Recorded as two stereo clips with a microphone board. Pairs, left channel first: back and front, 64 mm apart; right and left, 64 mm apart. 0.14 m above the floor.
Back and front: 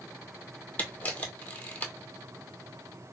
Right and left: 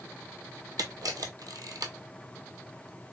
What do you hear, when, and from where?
0.8 s a camera shutter: 115° left, 0.9 m